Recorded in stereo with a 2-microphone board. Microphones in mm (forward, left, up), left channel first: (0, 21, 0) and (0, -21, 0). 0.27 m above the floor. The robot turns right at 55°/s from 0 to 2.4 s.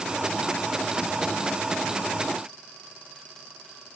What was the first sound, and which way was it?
Only background noise.